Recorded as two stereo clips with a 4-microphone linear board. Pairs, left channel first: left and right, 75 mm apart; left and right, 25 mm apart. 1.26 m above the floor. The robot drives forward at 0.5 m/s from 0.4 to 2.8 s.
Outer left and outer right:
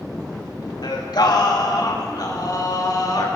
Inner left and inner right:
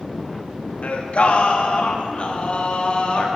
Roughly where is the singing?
Left.